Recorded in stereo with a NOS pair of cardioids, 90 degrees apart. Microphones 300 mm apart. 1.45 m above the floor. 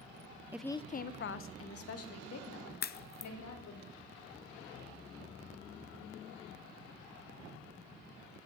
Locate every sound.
0.5 s a woman speaking: 10° right, 0.6 m; by 3.8 s 60° left, 4 m
2.8 s a crack: 35° left, 0.6 m